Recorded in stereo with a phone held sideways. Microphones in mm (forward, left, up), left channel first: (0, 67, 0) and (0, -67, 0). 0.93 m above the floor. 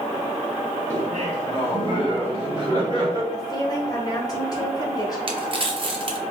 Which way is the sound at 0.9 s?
65° right (ahead or behind).